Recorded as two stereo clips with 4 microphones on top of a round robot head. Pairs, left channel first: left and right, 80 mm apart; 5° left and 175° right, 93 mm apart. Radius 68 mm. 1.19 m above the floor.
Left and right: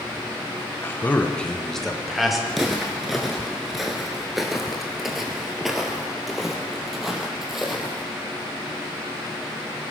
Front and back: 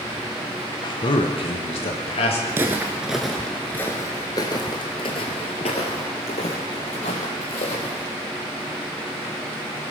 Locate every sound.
0.8 s a man speaking: 30° left, 1.0 m; by 2.4 s 5° right, 2.5 m
2.5 s footsteps: straight behind, 1.2 m; by 8.0 s 5° right, 3 m